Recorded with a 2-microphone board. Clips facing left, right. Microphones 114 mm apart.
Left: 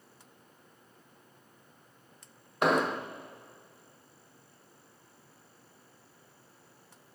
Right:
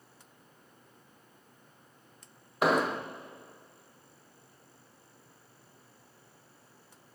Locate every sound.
2.6 s an explosion: centre (ahead or behind), 0.7 m